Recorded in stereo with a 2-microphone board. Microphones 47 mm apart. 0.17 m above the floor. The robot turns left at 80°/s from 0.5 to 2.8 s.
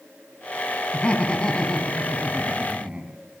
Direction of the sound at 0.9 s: 25° left (ahead or behind).